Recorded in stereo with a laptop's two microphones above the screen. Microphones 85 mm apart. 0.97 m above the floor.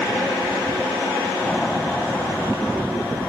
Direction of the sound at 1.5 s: Centre (ahead or behind).